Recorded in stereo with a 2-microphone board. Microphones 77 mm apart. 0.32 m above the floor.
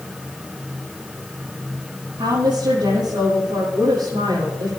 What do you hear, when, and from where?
2.2 s a woman speaking: 80° right, 8 m